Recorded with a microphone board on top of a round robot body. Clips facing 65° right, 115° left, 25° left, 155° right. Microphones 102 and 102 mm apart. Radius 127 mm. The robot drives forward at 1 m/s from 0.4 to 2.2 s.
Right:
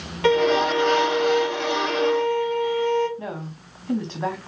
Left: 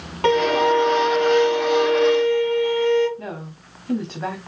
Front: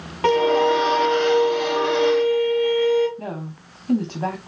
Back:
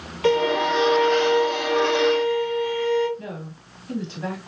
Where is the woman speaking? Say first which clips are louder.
Even, front 4 dB; 25° left, 1.4 m.